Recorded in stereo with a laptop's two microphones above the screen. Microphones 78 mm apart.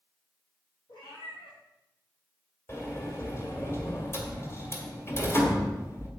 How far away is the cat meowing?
About 3.5 m.